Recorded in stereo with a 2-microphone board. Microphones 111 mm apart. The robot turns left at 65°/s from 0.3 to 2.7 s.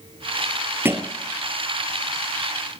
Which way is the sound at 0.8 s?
20° right (ahead or behind).